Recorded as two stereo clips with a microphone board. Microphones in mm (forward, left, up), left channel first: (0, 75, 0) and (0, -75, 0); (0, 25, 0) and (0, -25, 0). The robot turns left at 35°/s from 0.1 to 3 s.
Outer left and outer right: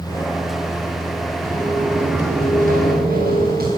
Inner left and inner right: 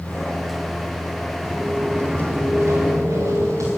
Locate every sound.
1.4 s footsteps: 15° right (ahead or behind), 7.5 m; by 3.7 s 80° right, 9 m